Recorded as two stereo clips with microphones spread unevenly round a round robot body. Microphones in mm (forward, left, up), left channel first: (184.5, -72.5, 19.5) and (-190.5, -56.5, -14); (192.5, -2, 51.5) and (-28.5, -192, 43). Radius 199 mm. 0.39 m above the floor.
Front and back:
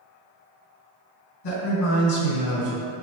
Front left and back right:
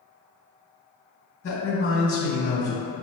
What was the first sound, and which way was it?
A man speaking, 5° left.